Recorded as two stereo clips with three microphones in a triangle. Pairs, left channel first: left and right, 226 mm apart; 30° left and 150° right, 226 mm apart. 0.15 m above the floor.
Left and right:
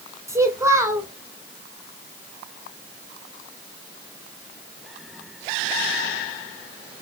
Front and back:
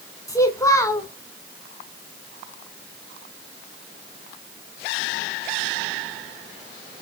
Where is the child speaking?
30° right, 0.8 m.